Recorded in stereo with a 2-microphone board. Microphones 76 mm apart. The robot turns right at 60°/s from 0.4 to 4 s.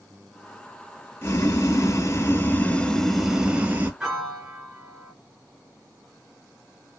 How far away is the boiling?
About 0.9 m.